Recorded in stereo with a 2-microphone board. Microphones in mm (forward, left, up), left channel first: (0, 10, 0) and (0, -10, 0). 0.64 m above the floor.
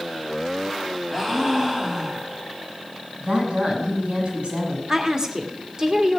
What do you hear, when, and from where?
1.1 s a gasp: 15° right (ahead or behind), 2.5 m
3.2 s a woman speaking: 60° right (ahead or behind), 5.5 m
4.9 s a woman speaking: 30° right (ahead or behind), 1.6 m